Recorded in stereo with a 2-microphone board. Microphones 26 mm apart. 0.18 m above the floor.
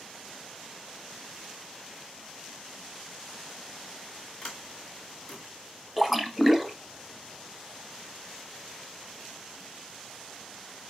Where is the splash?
Centre (ahead or behind), 0.6 m.